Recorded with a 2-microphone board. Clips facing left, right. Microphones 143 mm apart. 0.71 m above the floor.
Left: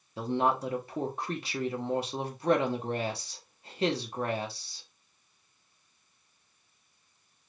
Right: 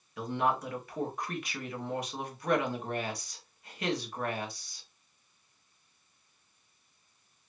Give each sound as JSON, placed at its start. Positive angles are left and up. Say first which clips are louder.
{"t": 0.2, "sound": "a woman speaking", "louder": "left 3 dB", "side_deg": 30, "distance_m": 1.4}